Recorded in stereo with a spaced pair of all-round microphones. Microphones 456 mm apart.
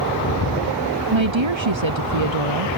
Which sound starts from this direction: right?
A woman speaking, at 1.1 s.